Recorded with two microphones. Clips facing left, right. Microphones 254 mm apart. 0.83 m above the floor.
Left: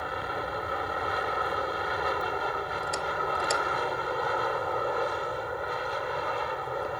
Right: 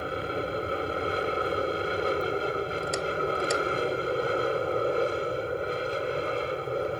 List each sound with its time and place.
0.0 s an aircraft: 30° right (ahead or behind)